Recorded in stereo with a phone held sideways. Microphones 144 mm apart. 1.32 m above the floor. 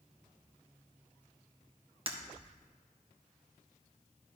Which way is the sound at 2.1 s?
40° right (ahead or behind).